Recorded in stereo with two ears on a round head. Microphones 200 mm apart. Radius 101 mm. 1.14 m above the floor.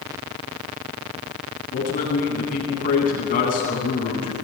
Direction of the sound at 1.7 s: 40° left (ahead or behind).